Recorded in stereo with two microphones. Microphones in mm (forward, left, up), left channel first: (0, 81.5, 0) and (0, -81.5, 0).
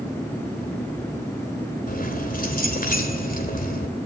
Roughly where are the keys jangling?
Left.